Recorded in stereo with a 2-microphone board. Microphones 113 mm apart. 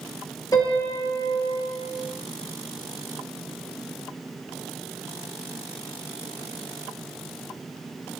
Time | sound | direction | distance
0.5 | a piano | 35° left (ahead or behind) | 1.9 m